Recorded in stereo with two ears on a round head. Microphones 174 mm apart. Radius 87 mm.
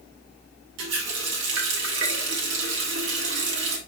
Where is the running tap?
65° right (ahead or behind), 1.9 m.